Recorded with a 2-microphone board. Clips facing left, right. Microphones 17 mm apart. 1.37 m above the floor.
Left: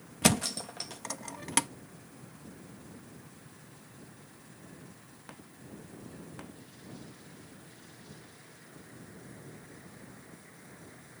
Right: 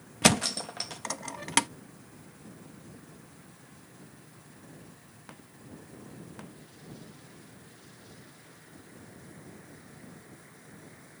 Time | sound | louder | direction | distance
0.2 | a thud | right 3 dB | 15° right (ahead or behind) | ?